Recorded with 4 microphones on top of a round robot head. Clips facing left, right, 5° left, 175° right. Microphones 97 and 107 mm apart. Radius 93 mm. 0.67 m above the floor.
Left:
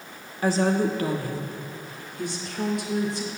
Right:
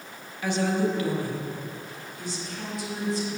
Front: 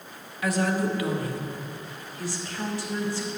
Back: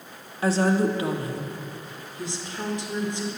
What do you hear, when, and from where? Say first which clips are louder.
0.4 s a woman speaking: left 3 dB, back 4 dB; 135° left, 1.3 m; by 3.3 s 115° left, 2.5 m